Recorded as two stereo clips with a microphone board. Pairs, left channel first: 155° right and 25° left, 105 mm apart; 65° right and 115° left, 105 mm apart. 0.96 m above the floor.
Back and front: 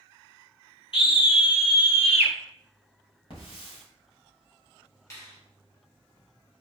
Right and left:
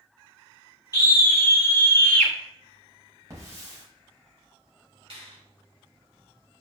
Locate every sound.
0.9 s a scream: 120° right, 2.5 m; by 2.3 s 145° right, 1.4 m
3.3 s a hiss: 170° left, 3.5 m
5.1 s a finger snap: 145° left, 3.5 m